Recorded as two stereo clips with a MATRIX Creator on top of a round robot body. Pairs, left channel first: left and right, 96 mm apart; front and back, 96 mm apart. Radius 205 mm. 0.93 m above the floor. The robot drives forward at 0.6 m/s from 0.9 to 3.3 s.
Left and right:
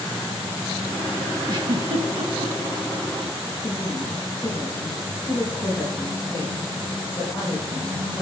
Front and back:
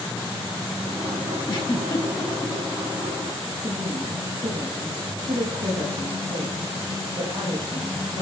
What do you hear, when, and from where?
1.5 s a giggle: 45° right, 1.2 m; by 2.5 s 75° right, 0.9 m
3.6 s a woman speaking: 165° left, 3.5 m